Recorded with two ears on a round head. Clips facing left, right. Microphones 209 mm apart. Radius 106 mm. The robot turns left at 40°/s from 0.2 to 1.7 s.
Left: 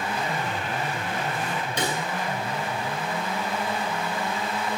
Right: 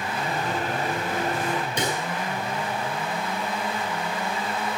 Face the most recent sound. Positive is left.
turn(degrees=-75)  # may be behind; listen again after turning